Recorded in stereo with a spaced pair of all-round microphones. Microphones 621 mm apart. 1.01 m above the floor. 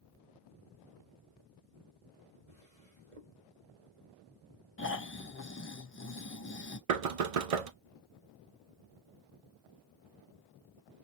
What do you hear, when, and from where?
2.5 s a drawer: 70° right (ahead or behind), 1.3 m
4.8 s snoring: 20° left (ahead or behind), 0.5 m
6.9 s knocking: 65° right (ahead or behind), 0.6 m